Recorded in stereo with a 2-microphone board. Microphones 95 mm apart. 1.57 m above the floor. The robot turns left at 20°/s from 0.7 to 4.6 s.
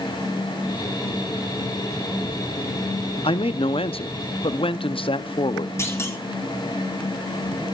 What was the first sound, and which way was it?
A man speaking, 75° left (ahead or behind).